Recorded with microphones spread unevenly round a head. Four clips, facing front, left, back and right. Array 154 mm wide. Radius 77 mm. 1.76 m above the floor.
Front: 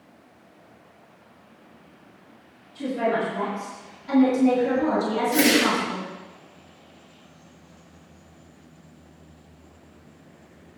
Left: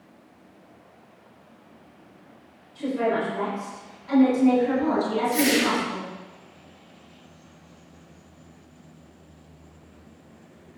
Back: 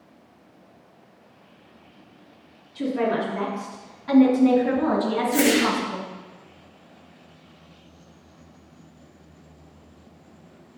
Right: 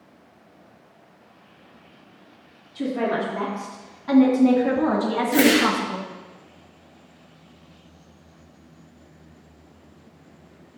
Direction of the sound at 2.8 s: 110° right.